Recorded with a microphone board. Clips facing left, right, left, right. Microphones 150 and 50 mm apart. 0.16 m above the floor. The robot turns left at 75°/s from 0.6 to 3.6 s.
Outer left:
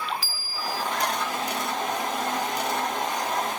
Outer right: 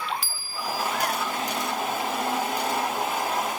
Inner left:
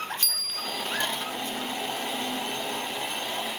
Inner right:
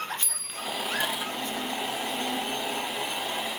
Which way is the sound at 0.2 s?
20° right (ahead or behind).